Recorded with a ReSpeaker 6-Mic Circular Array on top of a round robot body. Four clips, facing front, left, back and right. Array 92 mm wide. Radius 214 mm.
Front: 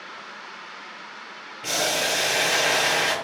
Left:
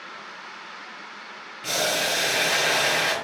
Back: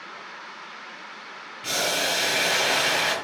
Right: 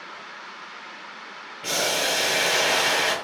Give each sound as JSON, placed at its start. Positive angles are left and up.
{"t": 1.6, "sound": "boiling", "azimuth_deg": -55, "distance_m": 0.8}